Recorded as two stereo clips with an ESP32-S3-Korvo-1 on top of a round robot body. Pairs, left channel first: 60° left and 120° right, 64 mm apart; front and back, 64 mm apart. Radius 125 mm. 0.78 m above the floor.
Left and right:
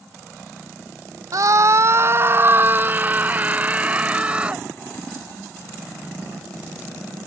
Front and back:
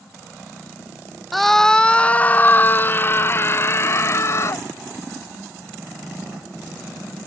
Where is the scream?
90° right; by 4.7 s 45° right.